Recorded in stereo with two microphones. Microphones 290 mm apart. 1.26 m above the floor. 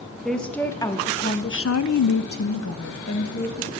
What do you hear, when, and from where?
0.2 s a woman speaking: centre (ahead or behind), 1.2 m; by 3.7 s 45° left (ahead or behind), 1.3 m